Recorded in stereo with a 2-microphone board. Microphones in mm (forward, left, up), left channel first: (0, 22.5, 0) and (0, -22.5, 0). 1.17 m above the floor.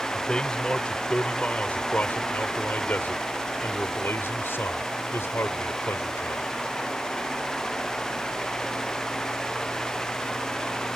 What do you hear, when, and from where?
0.1 s a man speaking: 20° left (ahead or behind); by 6.5 s 75° left (ahead or behind)